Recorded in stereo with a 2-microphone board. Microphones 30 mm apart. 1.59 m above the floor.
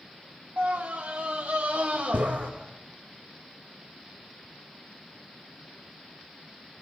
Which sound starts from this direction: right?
A scream, at 0.6 s.